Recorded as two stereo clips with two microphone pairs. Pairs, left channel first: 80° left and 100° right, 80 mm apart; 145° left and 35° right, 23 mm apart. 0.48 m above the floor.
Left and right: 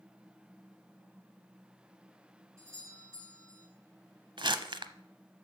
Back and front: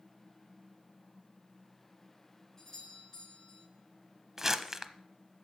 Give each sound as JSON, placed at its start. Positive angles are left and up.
{"t": 2.6, "sound": "a doorbell", "azimuth_deg": -150, "distance_m": 6.0}
{"t": 4.4, "sound": "crumpling", "azimuth_deg": -105, "distance_m": 0.7}